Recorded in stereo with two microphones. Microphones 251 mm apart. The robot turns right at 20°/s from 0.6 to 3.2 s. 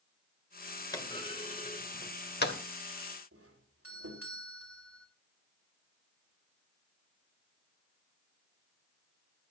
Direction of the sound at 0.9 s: 15° left (ahead or behind).